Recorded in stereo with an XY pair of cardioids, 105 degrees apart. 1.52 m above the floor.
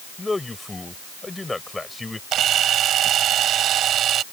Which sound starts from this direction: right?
A camera shutter, at 2.3 s.